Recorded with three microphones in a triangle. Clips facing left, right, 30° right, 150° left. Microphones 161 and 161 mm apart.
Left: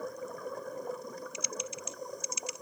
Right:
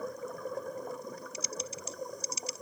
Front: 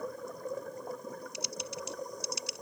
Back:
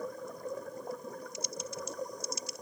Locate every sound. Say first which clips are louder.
1.3 s typing on a keyboard: even, even; 35° right